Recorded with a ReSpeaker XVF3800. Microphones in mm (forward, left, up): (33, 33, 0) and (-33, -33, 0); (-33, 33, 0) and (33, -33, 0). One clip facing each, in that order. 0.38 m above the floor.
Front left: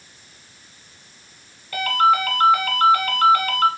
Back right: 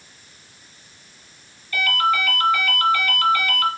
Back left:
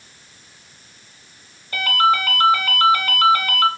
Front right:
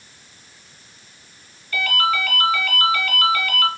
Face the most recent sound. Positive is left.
turn(degrees=80)